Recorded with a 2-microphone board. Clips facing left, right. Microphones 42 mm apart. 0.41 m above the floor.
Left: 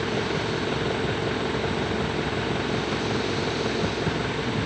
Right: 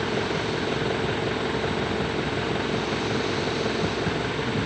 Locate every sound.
0.0 s an engine running: centre (ahead or behind)